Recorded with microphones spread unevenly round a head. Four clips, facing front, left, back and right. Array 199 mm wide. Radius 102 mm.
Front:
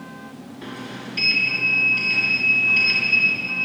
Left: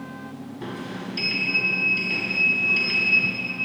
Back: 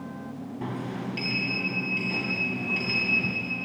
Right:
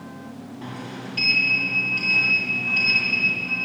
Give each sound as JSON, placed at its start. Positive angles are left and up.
{"t": 0.6, "sound": "a sliding door", "azimuth_deg": 170, "distance_m": 2.5}